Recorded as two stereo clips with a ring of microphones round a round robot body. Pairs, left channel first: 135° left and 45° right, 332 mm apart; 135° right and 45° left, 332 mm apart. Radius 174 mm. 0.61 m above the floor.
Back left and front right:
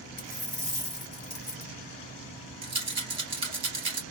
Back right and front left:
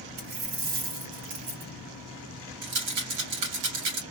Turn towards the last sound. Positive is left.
turn(degrees=30)